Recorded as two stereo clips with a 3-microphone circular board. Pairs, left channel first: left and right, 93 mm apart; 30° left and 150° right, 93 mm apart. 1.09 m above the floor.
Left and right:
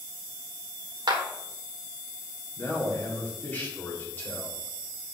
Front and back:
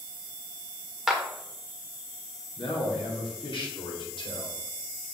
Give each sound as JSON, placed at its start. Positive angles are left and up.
{"t": 1.1, "sound": "a clap", "azimuth_deg": -60, "distance_m": 1.4}
{"t": 2.6, "sound": "a man speaking", "azimuth_deg": 20, "distance_m": 2.5}